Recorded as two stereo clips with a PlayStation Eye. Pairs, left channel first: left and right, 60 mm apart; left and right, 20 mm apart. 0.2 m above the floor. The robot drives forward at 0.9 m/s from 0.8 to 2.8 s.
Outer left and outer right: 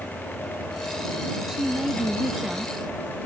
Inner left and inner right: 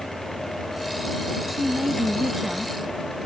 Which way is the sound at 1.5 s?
15° right (ahead or behind).